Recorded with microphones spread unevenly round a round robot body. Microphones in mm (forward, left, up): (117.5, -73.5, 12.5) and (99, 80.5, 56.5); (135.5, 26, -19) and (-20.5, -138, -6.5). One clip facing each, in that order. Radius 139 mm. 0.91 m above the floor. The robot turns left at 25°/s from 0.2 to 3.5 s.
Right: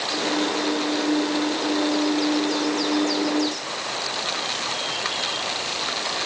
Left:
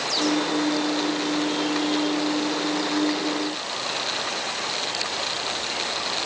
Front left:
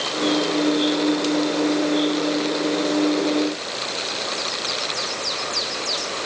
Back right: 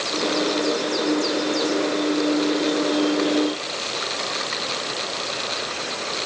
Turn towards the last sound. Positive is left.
No sound to turn to.